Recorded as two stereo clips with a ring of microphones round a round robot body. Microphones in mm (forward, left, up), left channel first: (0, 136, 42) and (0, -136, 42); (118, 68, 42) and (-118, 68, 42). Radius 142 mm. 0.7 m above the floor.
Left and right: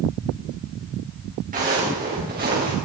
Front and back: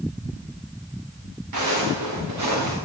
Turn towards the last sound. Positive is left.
turn(degrees=-145)